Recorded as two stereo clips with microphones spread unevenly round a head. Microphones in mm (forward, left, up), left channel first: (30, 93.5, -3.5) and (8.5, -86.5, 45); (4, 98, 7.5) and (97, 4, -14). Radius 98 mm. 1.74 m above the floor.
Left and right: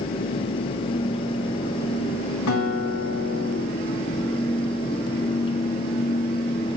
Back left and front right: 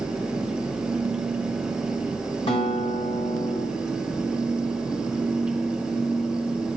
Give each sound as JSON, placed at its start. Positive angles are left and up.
{"t": 2.5, "sound": "a guitar", "azimuth_deg": 95, "distance_m": 4.0}